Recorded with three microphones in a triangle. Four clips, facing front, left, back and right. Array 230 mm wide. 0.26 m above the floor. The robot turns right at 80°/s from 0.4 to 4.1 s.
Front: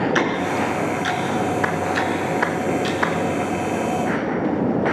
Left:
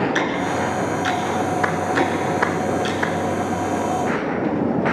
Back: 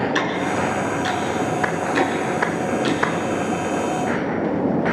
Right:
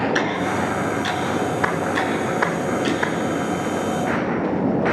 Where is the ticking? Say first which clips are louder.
Even, front 1 dB; 5° left, 3 m; by 3.0 s 145° right, 3 m.